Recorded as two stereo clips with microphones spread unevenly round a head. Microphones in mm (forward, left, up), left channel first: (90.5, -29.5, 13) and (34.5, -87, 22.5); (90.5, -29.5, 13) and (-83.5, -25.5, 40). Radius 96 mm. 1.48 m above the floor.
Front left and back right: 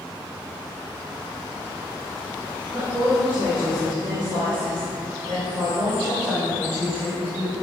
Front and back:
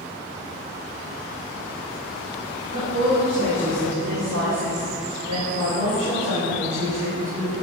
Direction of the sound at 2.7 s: 145° left.